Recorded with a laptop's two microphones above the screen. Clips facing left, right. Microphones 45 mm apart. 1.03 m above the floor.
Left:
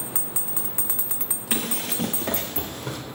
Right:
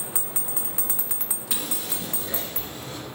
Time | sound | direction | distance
1.5 | running footsteps | 45° left (ahead or behind) | 1.4 m